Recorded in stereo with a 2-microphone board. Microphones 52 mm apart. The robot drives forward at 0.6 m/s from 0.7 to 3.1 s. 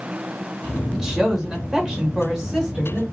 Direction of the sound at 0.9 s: 15° right (ahead or behind).